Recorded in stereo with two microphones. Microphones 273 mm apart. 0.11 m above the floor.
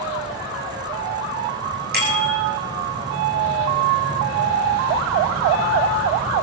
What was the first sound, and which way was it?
A bicycle bell, 35° right (ahead or behind).